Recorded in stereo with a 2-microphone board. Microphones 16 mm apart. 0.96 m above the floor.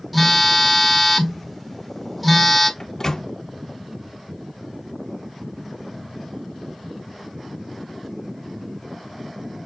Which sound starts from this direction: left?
A microwave, at 2.8 s.